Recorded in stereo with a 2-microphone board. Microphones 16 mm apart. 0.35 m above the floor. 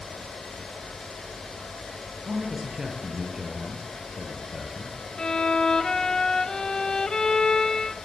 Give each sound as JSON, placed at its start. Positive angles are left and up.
{"t": 2.2, "sound": "a man speaking", "side_deg": -35, "distance_m": 6.0}
{"t": 5.2, "sound": "a violin", "side_deg": 50, "distance_m": 0.9}